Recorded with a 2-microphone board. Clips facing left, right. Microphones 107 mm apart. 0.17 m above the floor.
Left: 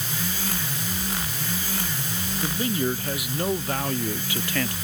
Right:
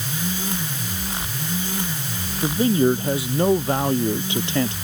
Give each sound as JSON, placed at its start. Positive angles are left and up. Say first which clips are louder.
{"t": 2.4, "sound": "a man speaking", "louder": "right 9 dB", "side_deg": -30}